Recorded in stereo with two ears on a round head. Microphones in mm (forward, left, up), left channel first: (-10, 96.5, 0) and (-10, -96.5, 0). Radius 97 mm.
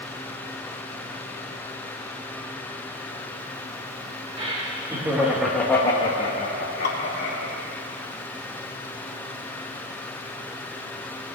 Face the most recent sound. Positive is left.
turn(degrees=50)  # may be behind; listen again after turning